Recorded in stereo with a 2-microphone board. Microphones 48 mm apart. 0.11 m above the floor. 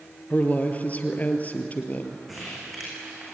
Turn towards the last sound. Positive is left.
turn(degrees=0)  # may be behind; listen again after turning